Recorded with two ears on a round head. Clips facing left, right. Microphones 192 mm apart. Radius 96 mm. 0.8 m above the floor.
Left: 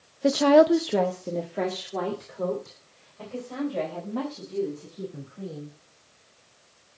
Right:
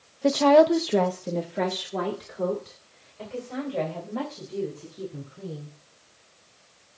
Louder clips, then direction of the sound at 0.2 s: Even; 10° left (ahead or behind).